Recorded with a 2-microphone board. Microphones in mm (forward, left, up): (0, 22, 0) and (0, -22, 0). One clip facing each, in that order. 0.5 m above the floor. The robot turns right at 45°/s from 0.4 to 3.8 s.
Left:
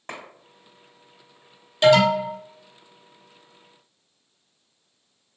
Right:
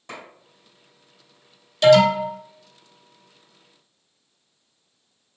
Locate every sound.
0.1 s a clap: 55° left (ahead or behind), 1.9 m
1.8 s an alarm: 25° left (ahead or behind), 1.1 m; by 2.3 s 10° left (ahead or behind), 1.1 m